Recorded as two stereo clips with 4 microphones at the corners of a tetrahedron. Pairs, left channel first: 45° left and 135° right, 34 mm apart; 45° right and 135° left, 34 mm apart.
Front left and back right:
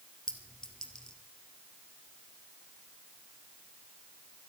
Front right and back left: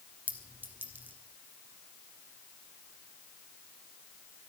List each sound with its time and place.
0.3 s a clink: 115° left, 1.6 m